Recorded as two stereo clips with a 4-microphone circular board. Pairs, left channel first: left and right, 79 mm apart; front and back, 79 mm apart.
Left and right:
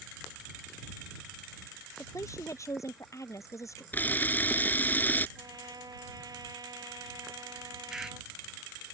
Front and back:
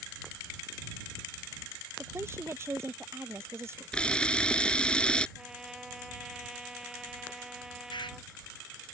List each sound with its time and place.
2.0 s a woman speaking: 130° left
3.9 s a camera shutter: 60° left
5.4 s a trumpet: 100° right
7.9 s a bird: 5° right